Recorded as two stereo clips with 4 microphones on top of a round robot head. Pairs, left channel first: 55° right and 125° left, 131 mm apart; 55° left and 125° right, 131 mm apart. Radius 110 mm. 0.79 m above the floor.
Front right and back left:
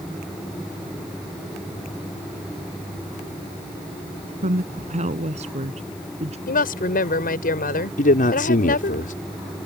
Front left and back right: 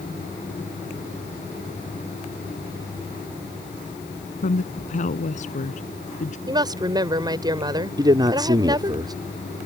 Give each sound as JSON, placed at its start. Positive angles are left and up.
{"t": 4.4, "sound": "a woman speaking", "azimuth_deg": 90}
{"t": 6.5, "sound": "a woman speaking", "azimuth_deg": -65}
{"t": 8.0, "sound": "a man speaking", "azimuth_deg": -65}